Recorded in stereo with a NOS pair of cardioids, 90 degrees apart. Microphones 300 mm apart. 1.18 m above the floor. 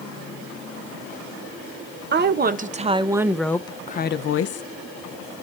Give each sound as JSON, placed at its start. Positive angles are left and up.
{"t": 2.1, "sound": "a woman speaking", "azimuth_deg": -35, "distance_m": 1.0}